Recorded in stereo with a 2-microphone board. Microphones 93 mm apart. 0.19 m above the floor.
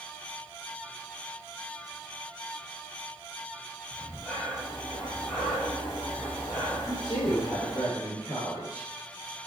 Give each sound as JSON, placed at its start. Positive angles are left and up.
{"t": 3.9, "sound": "breathing", "side_deg": 20, "distance_m": 2.0}
{"t": 6.9, "sound": "a woman speaking", "side_deg": 60, "distance_m": 3.0}